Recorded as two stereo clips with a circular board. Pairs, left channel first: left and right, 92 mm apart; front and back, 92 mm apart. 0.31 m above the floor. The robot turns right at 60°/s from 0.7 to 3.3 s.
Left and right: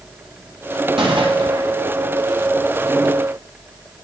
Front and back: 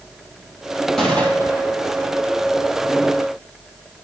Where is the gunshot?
90° right, 3 m; by 1.7 s 45° right, 3 m.